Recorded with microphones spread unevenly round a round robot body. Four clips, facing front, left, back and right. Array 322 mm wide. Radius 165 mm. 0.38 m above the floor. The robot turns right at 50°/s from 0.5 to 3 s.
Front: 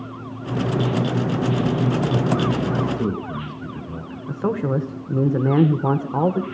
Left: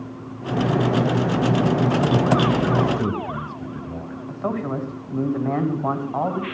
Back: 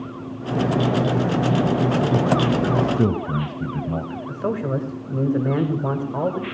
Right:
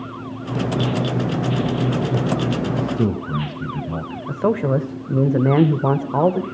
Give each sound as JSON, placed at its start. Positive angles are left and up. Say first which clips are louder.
{"t": 2.8, "sound": "a man speaking", "louder": "right 1 dB, back 3 dB", "azimuth_deg": -165, "distance_m": 1.7}
{"t": 4.3, "sound": "a man speaking", "louder": "right 7 dB, front 3 dB", "azimuth_deg": -65, "distance_m": 1.4}